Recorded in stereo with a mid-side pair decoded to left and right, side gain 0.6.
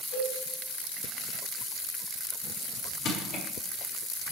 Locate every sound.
0.1 s a cowbell: 65° left, 5.5 m
3.0 s crushing: 60° left, 3 m